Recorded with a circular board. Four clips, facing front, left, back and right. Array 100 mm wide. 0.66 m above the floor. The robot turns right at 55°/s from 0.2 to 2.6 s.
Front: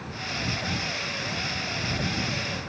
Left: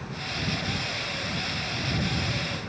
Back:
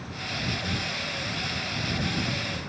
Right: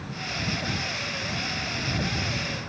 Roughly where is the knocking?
I don't hear knocking.